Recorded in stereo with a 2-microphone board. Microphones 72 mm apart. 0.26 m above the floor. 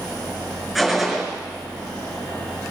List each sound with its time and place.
0.8 s a gunshot: centre (ahead or behind), 4 m